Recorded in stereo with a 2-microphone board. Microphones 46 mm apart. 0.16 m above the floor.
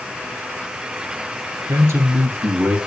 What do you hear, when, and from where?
1.7 s a man speaking: 60° right (ahead or behind), 2.5 m; by 2.8 s 65° right (ahead or behind), 3 m